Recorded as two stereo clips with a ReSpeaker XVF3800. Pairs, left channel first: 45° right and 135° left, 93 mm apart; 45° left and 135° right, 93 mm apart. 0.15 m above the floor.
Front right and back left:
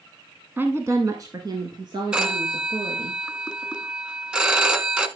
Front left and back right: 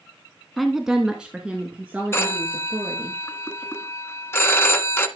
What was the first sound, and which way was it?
A woman speaking, 135° left.